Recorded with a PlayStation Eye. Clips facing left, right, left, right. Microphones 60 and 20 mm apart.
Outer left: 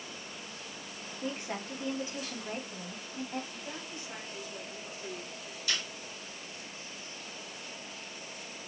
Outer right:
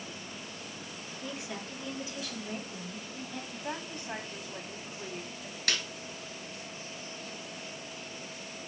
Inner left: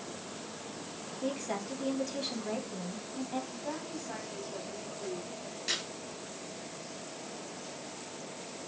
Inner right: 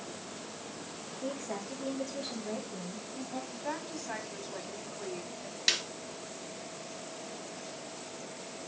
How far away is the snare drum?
About 1.6 m.